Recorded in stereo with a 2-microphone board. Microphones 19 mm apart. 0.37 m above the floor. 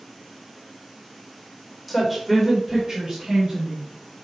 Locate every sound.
1.9 s a woman speaking: centre (ahead or behind), 1.2 m; by 3.9 s 45° right (ahead or behind), 2.5 m